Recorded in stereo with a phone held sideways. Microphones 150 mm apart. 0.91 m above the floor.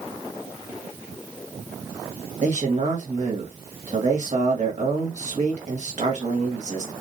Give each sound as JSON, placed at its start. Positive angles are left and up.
{"t": 2.4, "sound": "a man speaking", "side_deg": -55, "distance_m": 1.5}